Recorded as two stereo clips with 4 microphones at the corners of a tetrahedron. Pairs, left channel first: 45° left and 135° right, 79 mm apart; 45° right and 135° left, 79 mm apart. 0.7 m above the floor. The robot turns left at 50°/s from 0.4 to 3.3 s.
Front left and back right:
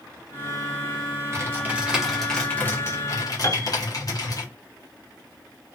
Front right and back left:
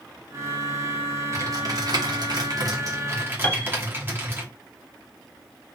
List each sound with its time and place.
1.3 s typing on a keyboard: 175° left, 1.0 m; by 4.4 s 75° left, 1.0 m
3.4 s a piano: 10° left, 0.6 m